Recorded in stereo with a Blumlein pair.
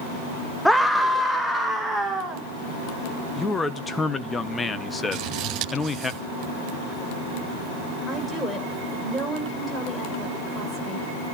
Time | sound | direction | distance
0.7 | a scream | straight ahead | 1.0 m
3.4 | a man speaking | 10° left | 1.4 m
5.1 | scissors | 35° right | 9 m
8.1 | a woman speaking | 5° left | 6 m